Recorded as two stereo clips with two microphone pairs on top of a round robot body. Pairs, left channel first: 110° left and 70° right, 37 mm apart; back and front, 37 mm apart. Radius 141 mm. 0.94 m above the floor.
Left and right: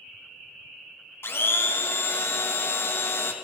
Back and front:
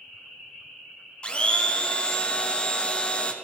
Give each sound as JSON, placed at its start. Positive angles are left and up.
{"t": 1.2, "sound": "a blender", "azimuth_deg": 130, "distance_m": 1.4}